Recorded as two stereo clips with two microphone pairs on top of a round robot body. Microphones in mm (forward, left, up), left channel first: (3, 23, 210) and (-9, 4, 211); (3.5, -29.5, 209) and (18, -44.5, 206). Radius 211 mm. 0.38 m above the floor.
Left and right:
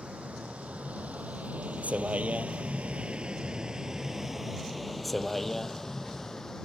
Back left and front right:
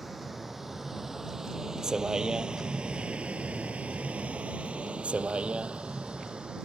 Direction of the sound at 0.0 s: 135° right.